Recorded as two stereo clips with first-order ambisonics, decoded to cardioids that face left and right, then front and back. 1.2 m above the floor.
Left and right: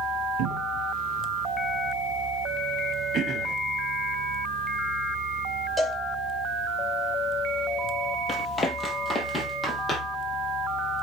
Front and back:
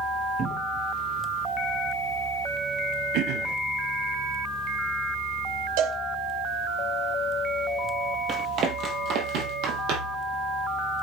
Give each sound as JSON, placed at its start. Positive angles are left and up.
{"t": 0.4, "sound": "a cupboard door", "azimuth_deg": -120, "distance_m": 1.2}
{"t": 3.1, "sound": "throat clearing", "azimuth_deg": -150, "distance_m": 0.9}
{"t": 5.8, "sound": "a cowbell", "azimuth_deg": -175, "distance_m": 1.1}
{"t": 8.3, "sound": "running footsteps", "azimuth_deg": 150, "distance_m": 1.4}